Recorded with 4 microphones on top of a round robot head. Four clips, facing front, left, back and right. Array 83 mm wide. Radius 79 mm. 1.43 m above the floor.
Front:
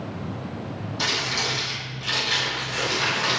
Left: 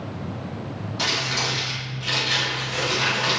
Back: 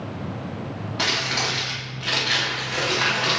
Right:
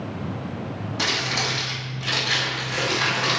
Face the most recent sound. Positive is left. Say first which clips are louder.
# even, back 2 dB
turn(degrees=-155)